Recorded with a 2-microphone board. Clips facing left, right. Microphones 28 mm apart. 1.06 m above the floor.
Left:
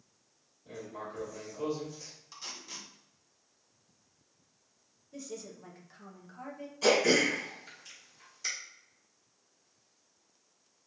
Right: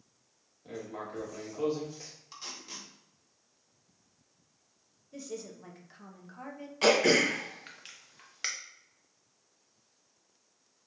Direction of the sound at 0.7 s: 70° right (ahead or behind).